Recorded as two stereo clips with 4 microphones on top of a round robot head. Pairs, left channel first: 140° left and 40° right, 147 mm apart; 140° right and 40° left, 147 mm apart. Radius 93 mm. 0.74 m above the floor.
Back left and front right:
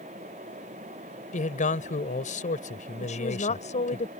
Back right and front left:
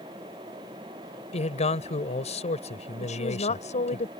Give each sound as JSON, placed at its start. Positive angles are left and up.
{"t": 1.3, "sound": "a man speaking", "azimuth_deg": 175}
{"t": 3.0, "sound": "a woman speaking", "azimuth_deg": 180}